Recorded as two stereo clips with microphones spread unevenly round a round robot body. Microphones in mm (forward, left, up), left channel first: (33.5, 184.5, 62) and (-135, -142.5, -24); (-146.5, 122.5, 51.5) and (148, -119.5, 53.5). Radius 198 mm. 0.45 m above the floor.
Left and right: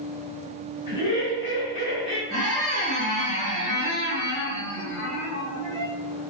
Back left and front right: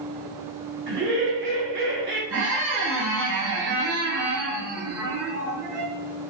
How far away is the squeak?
About 1.4 m.